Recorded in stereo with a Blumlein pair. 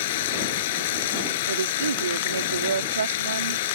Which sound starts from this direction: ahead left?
Running water, at 0.0 s.